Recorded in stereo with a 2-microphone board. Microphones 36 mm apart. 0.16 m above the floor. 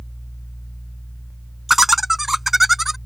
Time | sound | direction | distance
1.7 | laughter | 5° right (ahead or behind) | ?